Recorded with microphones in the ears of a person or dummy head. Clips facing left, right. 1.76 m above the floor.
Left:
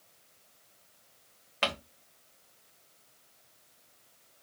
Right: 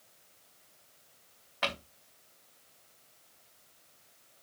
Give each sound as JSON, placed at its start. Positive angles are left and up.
{"t": 1.6, "sound": "crumpling", "side_deg": 40, "distance_m": 1.2}